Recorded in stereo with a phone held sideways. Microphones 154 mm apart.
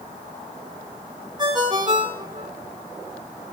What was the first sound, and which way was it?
A ringtone, 25° right (ahead or behind).